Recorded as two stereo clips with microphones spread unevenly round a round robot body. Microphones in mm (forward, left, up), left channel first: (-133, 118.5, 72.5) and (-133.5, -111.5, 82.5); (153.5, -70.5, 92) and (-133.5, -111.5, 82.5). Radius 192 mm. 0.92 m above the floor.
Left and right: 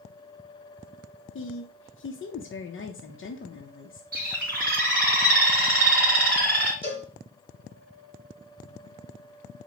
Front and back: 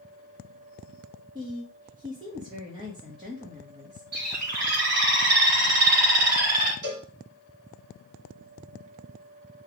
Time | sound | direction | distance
1.4 | a woman speaking | 115° left | 0.8 m
4.1 | a bird | 140° right | 3 m
6.8 | a cowbell | 160° right | 2.5 m